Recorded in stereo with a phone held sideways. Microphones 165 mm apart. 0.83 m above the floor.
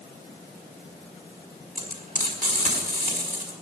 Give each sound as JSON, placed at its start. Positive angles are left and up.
{"t": 1.8, "sound": "frying", "side_deg": -55, "distance_m": 5.0}